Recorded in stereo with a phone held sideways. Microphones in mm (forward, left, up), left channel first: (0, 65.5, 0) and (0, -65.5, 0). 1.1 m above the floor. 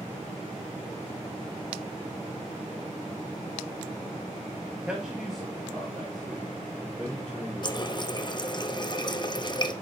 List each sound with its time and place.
4.9 s a man speaking: 5° right (ahead or behind), 1.0 m; by 8.5 s 10° left (ahead or behind), 4.5 m
7.6 s a running tap: 35° left (ahead or behind), 0.6 m